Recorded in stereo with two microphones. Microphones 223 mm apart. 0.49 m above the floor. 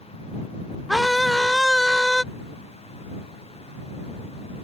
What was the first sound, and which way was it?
A scream, centre (ahead or behind).